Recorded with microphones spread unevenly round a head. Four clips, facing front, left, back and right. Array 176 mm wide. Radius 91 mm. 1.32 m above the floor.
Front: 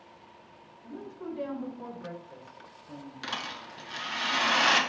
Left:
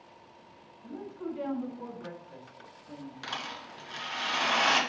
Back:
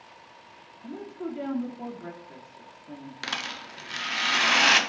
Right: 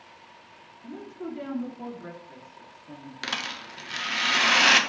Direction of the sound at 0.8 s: 160° right.